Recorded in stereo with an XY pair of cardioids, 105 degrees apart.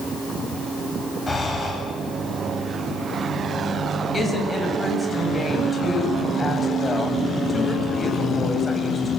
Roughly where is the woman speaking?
Ahead left.